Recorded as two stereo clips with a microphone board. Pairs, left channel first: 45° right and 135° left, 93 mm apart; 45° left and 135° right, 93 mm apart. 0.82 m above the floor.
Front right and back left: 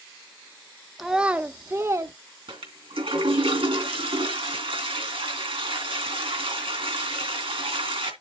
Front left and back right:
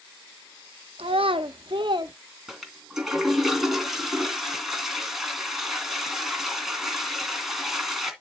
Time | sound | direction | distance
1.0 | a child speaking | 135° right | 0.8 m
2.5 | a toilet flushing | 135° left | 2.5 m